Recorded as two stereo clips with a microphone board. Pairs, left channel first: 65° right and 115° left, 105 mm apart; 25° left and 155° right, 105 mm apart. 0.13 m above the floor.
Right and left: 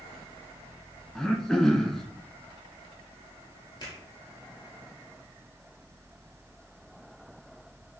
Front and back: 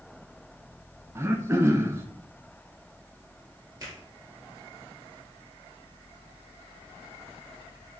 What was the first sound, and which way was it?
Throat clearing, 145° right.